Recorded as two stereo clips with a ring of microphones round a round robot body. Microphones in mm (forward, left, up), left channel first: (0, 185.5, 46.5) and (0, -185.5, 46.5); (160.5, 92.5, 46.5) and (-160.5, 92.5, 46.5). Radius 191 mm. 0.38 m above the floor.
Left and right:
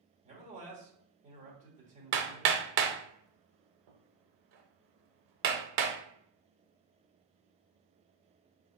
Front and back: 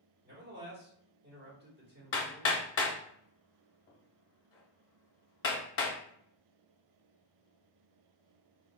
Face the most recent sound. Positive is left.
turn(degrees=-55)